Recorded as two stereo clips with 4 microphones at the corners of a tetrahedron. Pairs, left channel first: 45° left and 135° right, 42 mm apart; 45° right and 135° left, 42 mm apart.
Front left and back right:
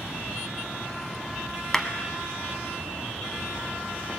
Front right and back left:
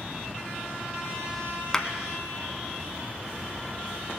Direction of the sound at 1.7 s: Straight ahead.